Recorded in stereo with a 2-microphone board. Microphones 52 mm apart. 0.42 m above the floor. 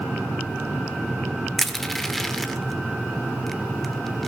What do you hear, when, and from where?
1.6 s crushing: 5° left (ahead or behind), 1.0 m